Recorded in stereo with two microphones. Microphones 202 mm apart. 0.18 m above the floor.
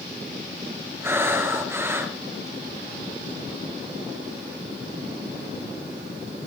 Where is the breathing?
10° right (ahead or behind), 3 m.